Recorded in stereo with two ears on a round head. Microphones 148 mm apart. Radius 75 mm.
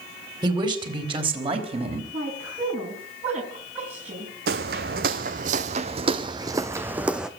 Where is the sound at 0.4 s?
25° right (ahead or behind), 4 m; by 2.0 s 40° right (ahead or behind), 4 m.